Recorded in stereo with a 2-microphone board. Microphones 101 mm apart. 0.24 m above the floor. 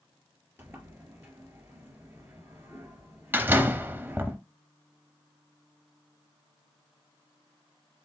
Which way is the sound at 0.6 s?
20° right (ahead or behind).